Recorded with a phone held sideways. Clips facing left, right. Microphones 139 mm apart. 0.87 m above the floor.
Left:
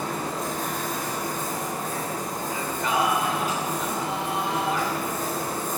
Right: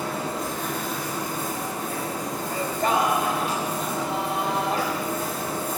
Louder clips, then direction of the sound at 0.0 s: Right 1 dB; 45° left (ahead or behind).